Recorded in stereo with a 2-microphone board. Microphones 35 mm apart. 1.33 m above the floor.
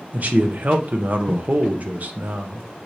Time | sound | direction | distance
0.1 | a man speaking | 50° right (ahead or behind) | 0.7 m